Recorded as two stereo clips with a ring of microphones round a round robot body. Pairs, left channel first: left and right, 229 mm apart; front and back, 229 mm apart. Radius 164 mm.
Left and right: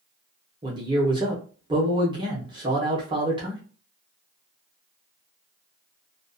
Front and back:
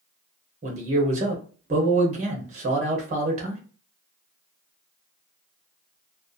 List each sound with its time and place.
0.6 s a man speaking: 150° right, 0.7 m